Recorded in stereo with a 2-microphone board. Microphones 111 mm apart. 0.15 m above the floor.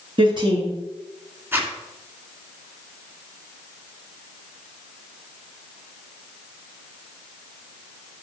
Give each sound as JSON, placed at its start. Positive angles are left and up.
{"t": 0.2, "sound": "a woman speaking", "side_deg": -45, "distance_m": 2.5}
{"t": 1.5, "sound": "a zipper", "side_deg": -20, "distance_m": 1.7}